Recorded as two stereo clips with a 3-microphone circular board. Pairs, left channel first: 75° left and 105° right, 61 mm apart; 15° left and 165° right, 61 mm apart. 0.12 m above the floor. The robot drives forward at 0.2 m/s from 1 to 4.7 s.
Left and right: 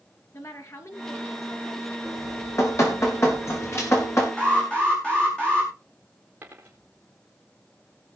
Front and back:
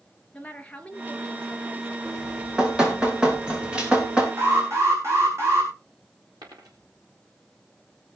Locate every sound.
0.3 s a woman speaking: 80° left, 2 m; by 1.9 s 90° left, 2 m
2.0 s dripping: 120° left, 5 m; by 4.3 s 125° left, 5.5 m
4.4 s an alarm: 150° left, 5.5 m
6.4 s a dropped coin: 165° right, 3.5 m